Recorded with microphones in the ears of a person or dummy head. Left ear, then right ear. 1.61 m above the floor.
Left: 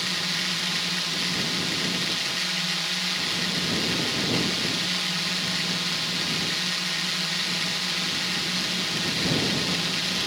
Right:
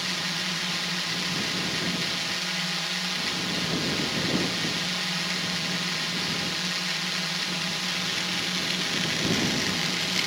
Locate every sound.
0.0 s a drone: 10° right (ahead or behind)